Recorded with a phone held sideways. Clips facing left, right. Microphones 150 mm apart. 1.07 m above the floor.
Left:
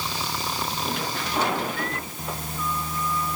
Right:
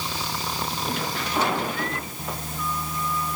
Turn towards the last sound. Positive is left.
No sound to turn to.